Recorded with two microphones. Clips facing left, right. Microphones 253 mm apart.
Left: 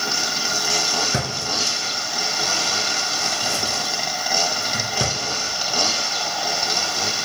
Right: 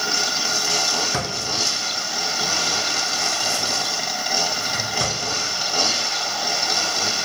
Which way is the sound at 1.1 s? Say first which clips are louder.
Left 1 dB; 25° left (ahead or behind).